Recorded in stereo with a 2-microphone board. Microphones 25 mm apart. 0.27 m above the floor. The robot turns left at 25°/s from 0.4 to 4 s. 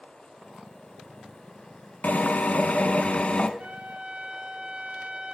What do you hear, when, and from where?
2.0 s a drill: 85° left, 1.0 m; by 3.5 s 45° left, 1.0 m
3.6 s a trumpet: 60° right (ahead or behind), 1.3 m; by 5.3 s 50° right (ahead or behind), 1.3 m